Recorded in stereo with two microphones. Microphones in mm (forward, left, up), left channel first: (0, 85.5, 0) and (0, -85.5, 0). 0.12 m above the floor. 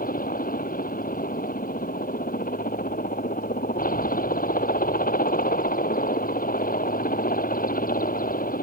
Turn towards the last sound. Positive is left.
turn(degrees=55)  # may be behind; listen again after turning